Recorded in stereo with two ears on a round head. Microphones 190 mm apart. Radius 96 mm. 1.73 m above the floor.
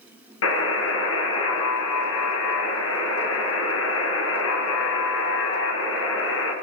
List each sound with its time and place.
0.4 s a buzzer: 60° left (ahead or behind), 1.9 m